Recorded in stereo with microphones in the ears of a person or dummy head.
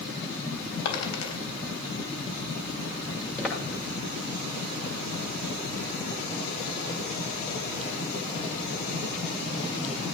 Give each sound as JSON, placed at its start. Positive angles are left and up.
{"t": 0.8, "sound": "a dropped coin", "side_deg": 80, "distance_m": 3.5}
{"t": 3.4, "sound": "footsteps", "side_deg": 5, "distance_m": 7.0}